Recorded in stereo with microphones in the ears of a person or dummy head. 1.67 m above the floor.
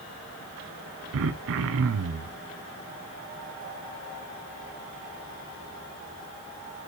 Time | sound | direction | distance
1.1 | throat clearing | 75° right (ahead or behind) | 0.7 m